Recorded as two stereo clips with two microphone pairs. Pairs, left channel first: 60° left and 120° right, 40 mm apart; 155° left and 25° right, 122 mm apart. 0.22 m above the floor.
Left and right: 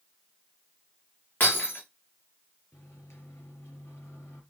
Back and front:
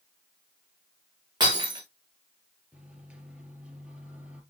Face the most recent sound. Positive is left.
turn(degrees=55)